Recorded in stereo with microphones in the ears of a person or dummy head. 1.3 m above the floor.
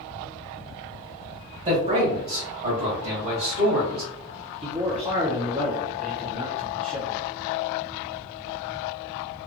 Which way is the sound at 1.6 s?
30° right (ahead or behind).